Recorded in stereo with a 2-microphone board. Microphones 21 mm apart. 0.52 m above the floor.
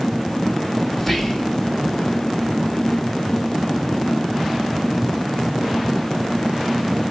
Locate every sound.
1.0 s whispering: 10° left (ahead or behind), 1.0 m